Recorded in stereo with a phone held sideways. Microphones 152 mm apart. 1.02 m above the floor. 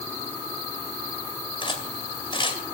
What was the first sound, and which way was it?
Cutlery clinking, 35° left (ahead or behind).